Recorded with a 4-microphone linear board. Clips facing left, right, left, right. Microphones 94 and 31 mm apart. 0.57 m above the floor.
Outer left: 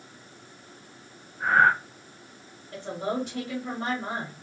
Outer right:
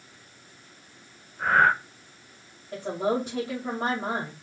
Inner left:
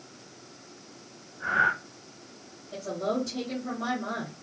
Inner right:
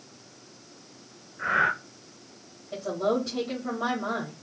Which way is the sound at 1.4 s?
75° right (ahead or behind).